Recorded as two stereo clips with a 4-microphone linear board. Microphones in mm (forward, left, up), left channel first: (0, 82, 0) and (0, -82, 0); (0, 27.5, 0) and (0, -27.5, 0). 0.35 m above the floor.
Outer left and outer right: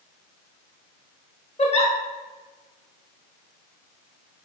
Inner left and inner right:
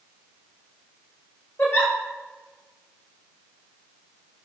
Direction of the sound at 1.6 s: 35° left (ahead or behind).